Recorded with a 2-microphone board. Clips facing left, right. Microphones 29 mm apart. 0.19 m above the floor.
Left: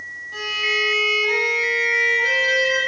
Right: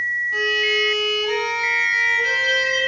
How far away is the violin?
About 1.4 m.